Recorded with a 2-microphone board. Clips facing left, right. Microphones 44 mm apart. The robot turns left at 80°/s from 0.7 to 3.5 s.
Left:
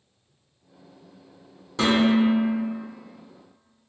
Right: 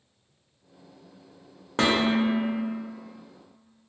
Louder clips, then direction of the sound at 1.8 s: Left 3 dB; 70° right.